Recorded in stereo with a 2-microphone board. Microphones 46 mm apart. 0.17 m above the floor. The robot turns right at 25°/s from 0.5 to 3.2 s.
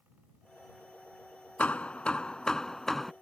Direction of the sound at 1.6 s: 135° left.